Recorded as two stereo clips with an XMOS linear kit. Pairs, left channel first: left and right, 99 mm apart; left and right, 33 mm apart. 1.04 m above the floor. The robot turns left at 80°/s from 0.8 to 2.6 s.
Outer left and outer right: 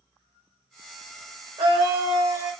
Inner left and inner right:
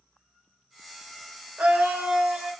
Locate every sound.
1.6 s a scream: 90° right, 0.9 m; by 2.5 s 165° right, 0.9 m